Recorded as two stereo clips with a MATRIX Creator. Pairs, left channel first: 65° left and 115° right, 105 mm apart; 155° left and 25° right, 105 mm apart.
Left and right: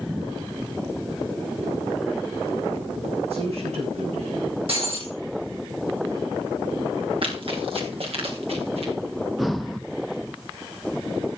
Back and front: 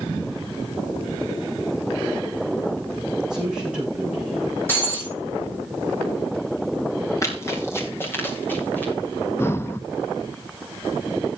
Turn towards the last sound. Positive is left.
turn(degrees=160)